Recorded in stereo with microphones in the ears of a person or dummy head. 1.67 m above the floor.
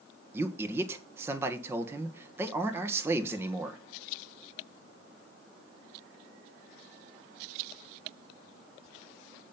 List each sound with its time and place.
0.3 s a man speaking: 10° right (ahead or behind), 1.4 m